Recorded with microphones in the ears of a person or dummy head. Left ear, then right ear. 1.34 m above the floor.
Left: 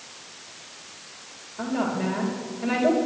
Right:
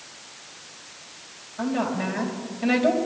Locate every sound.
1.6 s a woman speaking: 15° right (ahead or behind), 3.5 m